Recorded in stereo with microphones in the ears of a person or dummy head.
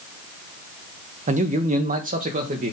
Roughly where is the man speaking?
Right.